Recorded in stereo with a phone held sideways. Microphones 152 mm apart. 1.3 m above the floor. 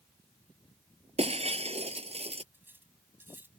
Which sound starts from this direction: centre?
Cutlery clinking, at 2.5 s.